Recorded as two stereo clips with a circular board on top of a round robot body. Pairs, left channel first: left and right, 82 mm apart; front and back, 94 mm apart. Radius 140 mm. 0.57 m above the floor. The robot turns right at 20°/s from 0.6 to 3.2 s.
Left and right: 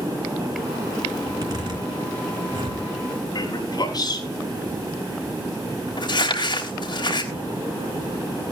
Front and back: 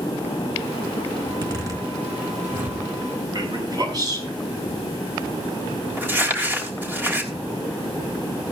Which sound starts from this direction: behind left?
A man speaking, at 3.3 s.